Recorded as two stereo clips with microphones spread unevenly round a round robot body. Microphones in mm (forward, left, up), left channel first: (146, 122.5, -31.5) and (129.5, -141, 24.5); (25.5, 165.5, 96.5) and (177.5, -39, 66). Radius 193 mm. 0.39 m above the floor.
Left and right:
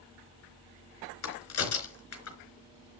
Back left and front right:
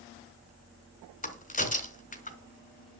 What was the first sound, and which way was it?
A crack, 65° left.